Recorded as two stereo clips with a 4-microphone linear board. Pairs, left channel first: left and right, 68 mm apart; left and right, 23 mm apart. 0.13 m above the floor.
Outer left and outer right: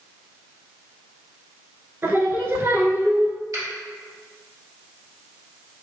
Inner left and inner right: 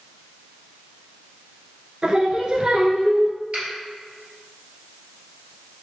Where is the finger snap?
55° right (ahead or behind), 1.9 m.